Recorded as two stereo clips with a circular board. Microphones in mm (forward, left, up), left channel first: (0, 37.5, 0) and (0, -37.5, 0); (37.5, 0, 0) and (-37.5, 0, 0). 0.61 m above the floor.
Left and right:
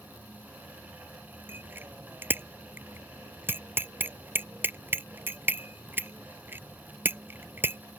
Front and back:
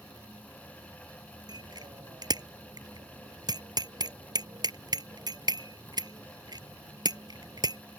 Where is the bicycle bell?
155° right.